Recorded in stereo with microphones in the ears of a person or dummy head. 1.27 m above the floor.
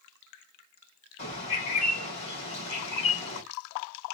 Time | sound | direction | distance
1.2 | a bird | 40° left (ahead or behind) | 2 m